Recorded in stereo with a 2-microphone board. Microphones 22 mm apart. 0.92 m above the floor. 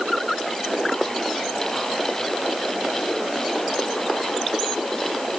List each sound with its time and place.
Only background noise.